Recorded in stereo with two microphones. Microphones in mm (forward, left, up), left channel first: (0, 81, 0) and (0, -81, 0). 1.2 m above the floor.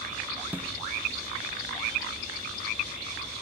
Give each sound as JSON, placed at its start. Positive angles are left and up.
{"t": 0.5, "sound": "a snare drum", "side_deg": -10, "distance_m": 0.8}